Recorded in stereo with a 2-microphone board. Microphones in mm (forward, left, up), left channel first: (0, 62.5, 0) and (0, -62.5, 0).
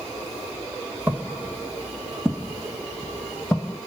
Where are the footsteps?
15° right (ahead or behind), 1.5 m; by 3.8 s 5° left (ahead or behind), 1.9 m.